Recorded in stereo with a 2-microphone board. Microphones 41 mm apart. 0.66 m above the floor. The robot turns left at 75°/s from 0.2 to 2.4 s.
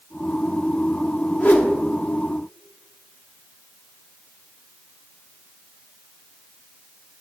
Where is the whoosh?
50° left (ahead or behind), 0.9 m; by 1.7 s 60° left (ahead or behind), 0.9 m.